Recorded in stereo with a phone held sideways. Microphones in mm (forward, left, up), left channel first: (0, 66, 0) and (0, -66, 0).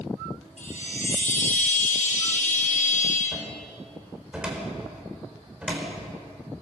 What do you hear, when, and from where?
0.6 s a chime: 70° left (ahead or behind), 7 m
3.3 s a cupboard door: 5° right (ahead or behind), 4.5 m